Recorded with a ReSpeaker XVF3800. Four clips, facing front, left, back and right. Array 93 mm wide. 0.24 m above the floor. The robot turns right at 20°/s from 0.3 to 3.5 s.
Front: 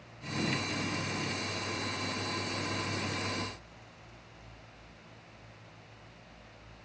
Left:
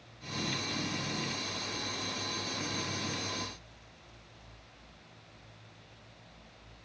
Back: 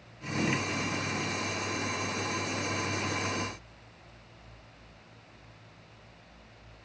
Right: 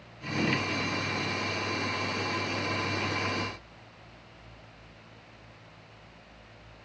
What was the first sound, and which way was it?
Only background noise.